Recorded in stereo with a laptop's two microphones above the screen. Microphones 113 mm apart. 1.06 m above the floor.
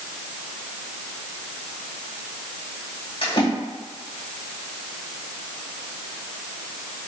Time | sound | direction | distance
3.2 | a splash | 50° left (ahead or behind) | 1.5 m